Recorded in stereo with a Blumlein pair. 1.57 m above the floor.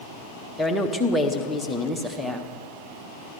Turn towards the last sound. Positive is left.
turn(degrees=0)